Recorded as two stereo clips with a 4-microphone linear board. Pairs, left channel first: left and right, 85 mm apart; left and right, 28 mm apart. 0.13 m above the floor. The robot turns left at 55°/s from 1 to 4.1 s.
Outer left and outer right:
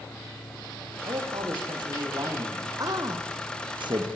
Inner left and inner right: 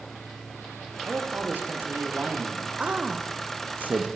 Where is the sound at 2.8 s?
45° right (ahead or behind), 5 m; by 4.1 s 65° right (ahead or behind), 5 m.